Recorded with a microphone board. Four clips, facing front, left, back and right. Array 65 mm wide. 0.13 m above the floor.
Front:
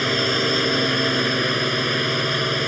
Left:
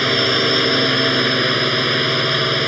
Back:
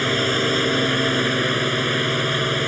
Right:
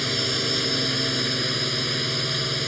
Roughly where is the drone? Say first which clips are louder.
Left 10 dB, back 1 dB; left.